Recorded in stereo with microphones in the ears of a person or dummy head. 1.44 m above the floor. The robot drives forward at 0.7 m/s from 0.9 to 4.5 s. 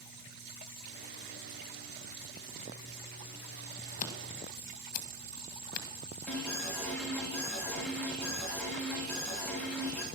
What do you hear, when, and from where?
4.0 s scissors: 40° left (ahead or behind), 1.9 m; by 5.9 s 45° left (ahead or behind), 1.6 m
6.3 s an alarm: 5° left (ahead or behind), 3.5 m